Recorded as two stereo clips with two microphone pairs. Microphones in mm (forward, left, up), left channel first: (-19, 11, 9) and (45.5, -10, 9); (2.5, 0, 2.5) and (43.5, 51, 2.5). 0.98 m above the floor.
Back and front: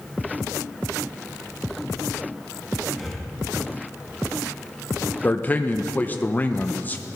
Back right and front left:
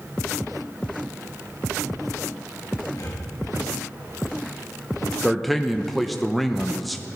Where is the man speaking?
135° left, 0.6 m.